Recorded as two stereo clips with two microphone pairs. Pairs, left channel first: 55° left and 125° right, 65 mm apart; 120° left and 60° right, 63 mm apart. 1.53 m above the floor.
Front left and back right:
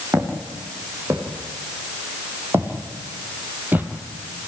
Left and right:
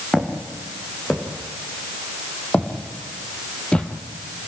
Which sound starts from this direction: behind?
Footsteps, at 0.1 s.